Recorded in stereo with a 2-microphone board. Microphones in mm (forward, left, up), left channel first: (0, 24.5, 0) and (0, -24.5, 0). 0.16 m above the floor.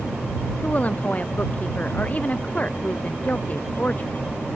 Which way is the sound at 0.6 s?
30° left (ahead or behind).